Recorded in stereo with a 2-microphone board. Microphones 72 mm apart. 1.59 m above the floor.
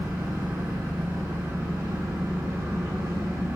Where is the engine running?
70° right (ahead or behind), 2.5 m.